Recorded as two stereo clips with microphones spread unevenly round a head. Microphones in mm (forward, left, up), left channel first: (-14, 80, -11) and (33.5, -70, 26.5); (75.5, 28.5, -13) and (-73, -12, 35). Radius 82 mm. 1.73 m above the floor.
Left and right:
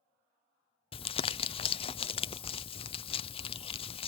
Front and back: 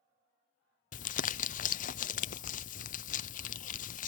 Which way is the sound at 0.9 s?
55° left.